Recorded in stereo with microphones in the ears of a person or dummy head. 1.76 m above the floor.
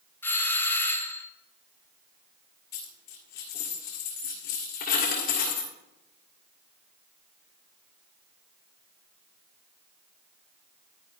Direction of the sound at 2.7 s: 40° left (ahead or behind).